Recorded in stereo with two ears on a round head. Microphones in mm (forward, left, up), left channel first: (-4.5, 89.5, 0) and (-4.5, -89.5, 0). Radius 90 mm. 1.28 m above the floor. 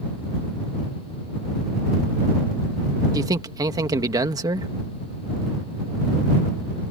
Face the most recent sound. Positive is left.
turn(degrees=-20)  # may be behind; listen again after turning